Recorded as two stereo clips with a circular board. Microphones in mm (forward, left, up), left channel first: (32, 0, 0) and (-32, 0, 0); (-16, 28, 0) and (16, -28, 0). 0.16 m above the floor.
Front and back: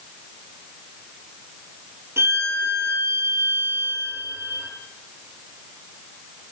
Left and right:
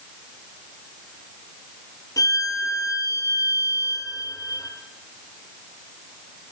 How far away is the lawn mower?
I don't hear a lawn mower.